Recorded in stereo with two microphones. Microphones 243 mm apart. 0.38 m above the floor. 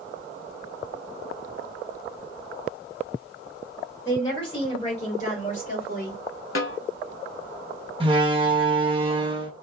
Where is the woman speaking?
15° left (ahead or behind), 1.7 m; by 6.2 s 40° left (ahead or behind), 1.7 m.